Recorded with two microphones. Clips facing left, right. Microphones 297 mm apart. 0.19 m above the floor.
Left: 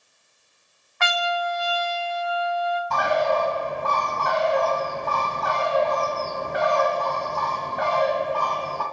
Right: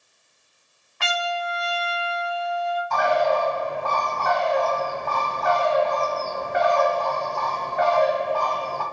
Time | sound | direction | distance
1.0 | a trumpet | 40° right (ahead or behind) | 0.9 m
2.9 | a bird | 40° left (ahead or behind) | 1.0 m